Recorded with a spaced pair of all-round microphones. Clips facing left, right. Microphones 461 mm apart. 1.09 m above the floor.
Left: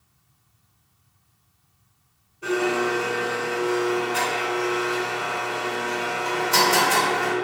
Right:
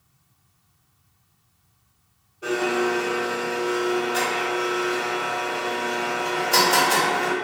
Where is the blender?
15° left (ahead or behind), 1.8 m.